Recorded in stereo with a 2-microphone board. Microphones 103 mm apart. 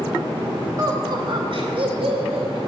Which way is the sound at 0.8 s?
40° right (ahead or behind).